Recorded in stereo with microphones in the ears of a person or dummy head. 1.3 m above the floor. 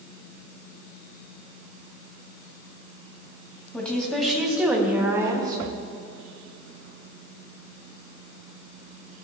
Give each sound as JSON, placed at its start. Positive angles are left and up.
{"t": 3.7, "sound": "a woman speaking", "side_deg": 10, "distance_m": 2.0}